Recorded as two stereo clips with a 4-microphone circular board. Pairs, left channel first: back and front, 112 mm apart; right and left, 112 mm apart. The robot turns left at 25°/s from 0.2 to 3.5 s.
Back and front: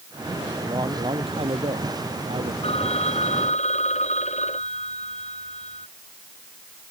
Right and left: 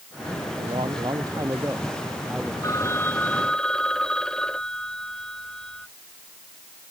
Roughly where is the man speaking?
Ahead left.